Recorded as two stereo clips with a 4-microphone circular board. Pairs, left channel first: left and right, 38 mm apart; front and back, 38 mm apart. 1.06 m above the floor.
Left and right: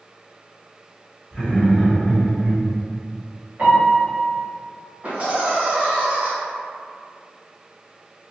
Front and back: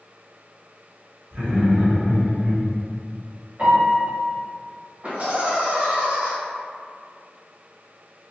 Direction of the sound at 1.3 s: 170° left.